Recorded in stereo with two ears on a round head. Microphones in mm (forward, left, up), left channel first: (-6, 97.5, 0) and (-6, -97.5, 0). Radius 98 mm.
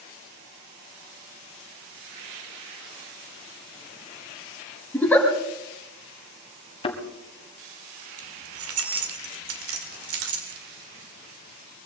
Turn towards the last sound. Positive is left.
turn(degrees=-75)  # may be behind; listen again after turning